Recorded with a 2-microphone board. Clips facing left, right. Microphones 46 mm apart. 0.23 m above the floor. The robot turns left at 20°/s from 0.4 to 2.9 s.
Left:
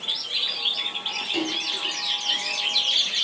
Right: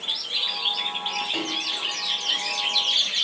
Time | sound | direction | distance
1.3 | a splash | 25° right (ahead or behind) | 1.5 m